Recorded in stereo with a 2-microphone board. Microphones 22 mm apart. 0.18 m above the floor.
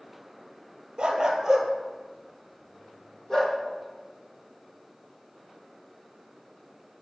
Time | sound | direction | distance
1.0 | a dog barking | 35° right (ahead or behind) | 1.4 m